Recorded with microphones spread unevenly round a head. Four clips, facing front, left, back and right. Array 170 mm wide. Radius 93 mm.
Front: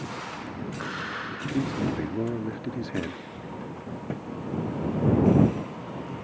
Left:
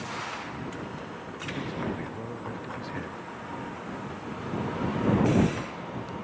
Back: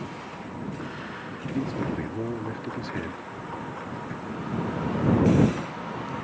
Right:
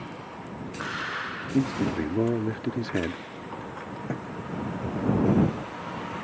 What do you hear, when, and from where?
1.5 s a man speaking: 75° right
4.1 s a thud: 50° right